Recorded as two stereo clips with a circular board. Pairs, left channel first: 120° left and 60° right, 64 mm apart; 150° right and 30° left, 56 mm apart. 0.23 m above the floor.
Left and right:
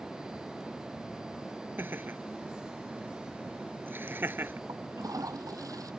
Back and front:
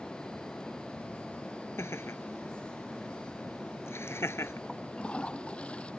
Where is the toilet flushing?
80° right.